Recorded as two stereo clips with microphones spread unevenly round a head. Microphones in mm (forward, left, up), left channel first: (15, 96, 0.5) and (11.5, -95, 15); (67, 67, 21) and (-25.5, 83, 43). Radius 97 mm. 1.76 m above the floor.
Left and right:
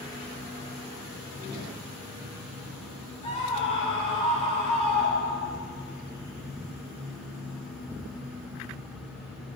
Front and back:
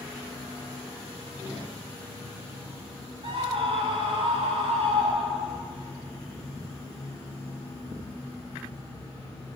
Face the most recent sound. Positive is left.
turn(degrees=150)